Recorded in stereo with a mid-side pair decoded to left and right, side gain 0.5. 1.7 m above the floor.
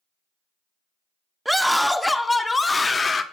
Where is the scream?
5° right, 1.3 m; by 3.2 s 30° left, 1.8 m.